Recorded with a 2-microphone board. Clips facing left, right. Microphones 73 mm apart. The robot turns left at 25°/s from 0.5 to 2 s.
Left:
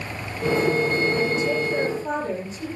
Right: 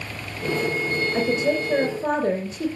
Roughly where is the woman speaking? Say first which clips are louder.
Right 1 dB; right.